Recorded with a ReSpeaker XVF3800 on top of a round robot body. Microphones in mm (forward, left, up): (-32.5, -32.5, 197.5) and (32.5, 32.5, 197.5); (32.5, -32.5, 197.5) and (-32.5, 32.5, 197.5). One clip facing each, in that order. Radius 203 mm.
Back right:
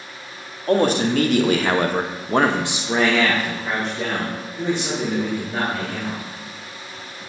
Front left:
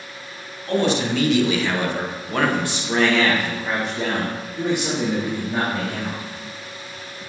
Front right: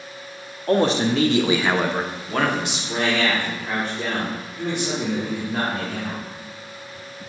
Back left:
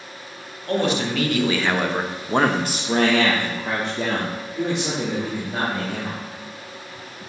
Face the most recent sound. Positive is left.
turn(degrees=115)